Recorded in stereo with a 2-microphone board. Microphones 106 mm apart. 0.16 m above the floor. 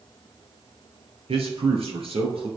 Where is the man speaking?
65° right (ahead or behind), 3 m.